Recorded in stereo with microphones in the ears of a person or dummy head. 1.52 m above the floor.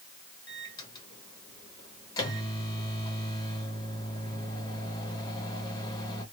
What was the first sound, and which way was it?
A microwave, 20° left (ahead or behind).